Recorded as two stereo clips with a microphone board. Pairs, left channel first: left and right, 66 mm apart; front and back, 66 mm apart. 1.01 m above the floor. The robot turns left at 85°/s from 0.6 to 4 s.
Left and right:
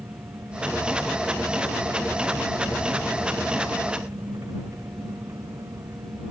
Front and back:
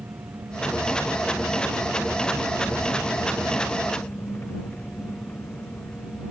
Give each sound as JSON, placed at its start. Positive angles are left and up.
{"t": 0.0, "sound": "an engine running", "azimuth_deg": -130}